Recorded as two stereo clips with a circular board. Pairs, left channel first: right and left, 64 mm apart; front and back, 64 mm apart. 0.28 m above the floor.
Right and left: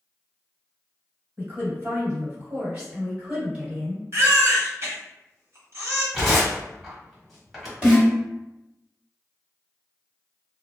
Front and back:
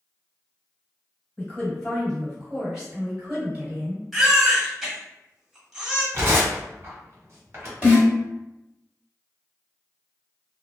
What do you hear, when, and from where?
1.4 s a woman speaking: 65° left, 1.9 m; by 4.0 s 155° left, 1.9 m
4.1 s a baby crying: 95° left, 1.1 m
6.1 s tearing paper: straight behind, 1.2 m
7.8 s a snare drum: 140° left, 1.9 m